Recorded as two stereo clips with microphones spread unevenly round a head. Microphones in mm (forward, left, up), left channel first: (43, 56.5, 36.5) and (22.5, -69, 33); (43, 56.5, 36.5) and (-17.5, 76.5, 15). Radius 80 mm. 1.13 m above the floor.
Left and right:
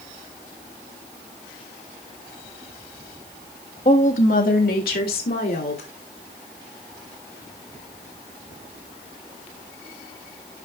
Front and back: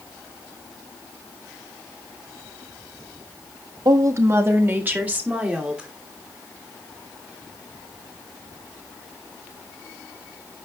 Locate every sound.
3.9 s a woman speaking: 130° left, 1.4 m; by 5.9 s 90° left, 3 m